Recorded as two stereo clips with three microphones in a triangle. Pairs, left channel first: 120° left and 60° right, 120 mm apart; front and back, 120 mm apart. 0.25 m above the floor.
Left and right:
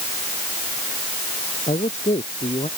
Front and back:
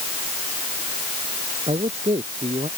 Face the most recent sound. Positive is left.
turn(degrees=145)